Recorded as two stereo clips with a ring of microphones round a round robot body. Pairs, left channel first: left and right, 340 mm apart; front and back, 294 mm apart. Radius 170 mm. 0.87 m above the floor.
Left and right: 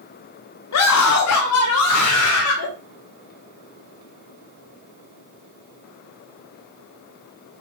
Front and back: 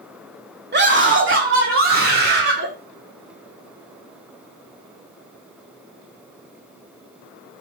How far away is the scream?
About 2 m.